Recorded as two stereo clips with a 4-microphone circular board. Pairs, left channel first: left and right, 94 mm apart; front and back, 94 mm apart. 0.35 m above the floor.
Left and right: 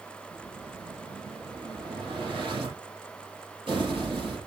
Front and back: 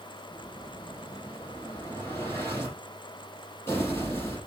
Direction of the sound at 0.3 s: 65° right.